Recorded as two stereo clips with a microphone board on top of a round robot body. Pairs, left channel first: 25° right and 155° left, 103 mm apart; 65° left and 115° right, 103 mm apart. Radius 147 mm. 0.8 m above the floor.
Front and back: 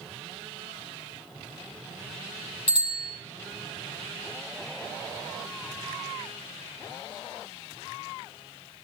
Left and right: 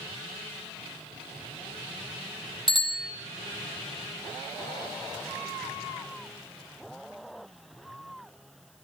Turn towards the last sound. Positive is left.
turn(degrees=-30)